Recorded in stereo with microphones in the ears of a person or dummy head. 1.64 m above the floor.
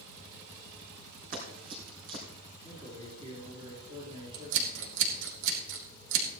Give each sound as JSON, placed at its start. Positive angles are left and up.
{"t": 1.3, "sound": "running footsteps", "side_deg": -45, "distance_m": 3.5}
{"t": 2.6, "sound": "a man speaking", "side_deg": -30, "distance_m": 4.5}
{"t": 4.3, "sound": "scissors", "side_deg": -75, "distance_m": 3.0}